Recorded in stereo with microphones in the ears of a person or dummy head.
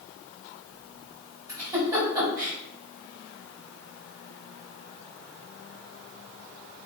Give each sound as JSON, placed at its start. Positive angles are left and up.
{"t": 1.5, "sound": "a giggle", "side_deg": -10, "distance_m": 4.0}